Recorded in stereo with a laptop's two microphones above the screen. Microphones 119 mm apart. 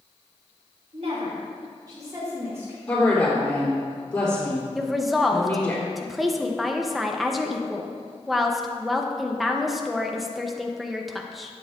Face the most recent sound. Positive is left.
turn(degrees=0)  # may be behind; listen again after turning